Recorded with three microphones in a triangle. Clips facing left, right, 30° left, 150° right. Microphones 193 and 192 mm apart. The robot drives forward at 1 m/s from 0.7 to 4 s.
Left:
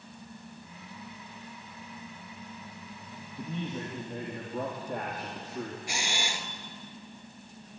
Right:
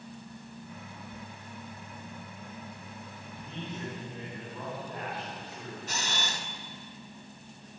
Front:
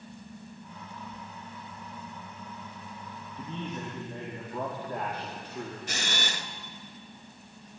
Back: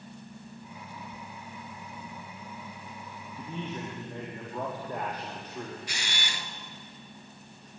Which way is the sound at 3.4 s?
130° left.